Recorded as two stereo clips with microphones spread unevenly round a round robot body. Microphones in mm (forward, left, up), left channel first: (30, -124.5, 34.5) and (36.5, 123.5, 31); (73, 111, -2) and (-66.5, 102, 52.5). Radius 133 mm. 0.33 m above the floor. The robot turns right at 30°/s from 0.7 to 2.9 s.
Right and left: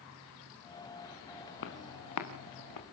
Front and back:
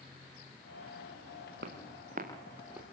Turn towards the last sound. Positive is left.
turn(degrees=-90)